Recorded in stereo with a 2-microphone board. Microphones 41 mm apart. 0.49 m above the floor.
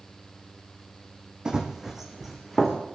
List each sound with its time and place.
1.4 s running footsteps: 20° right (ahead or behind), 1.7 m; by 2.8 s 5° right (ahead or behind), 3 m